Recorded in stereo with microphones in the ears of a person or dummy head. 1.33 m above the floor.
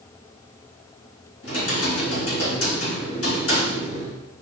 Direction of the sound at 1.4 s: 80° left.